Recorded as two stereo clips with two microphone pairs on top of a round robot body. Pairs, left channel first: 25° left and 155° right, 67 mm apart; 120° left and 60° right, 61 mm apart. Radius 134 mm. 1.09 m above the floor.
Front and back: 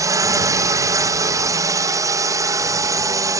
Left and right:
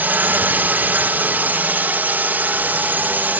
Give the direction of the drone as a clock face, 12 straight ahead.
4 o'clock.